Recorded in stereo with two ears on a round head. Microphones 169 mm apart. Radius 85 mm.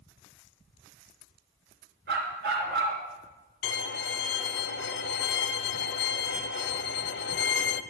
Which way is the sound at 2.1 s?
55° right (ahead or behind).